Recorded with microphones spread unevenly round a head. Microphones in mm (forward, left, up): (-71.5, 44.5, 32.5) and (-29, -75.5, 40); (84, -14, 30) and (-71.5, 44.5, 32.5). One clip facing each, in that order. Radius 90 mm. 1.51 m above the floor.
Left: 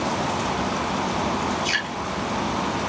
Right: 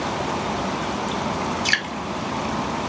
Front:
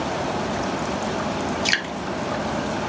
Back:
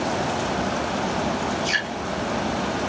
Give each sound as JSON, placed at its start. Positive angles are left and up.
{"t": 1.6, "sound": "dripping", "azimuth_deg": -45, "distance_m": 1.5}